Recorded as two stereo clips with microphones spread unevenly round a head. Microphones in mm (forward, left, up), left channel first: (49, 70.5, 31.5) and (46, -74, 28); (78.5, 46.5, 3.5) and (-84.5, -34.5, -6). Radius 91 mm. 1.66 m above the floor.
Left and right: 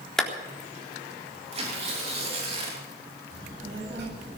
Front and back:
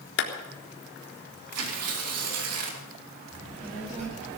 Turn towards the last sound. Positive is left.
turn(degrees=-95)